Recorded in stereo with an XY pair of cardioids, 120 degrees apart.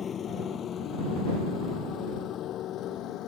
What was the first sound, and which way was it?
A motorcycle, 40° left.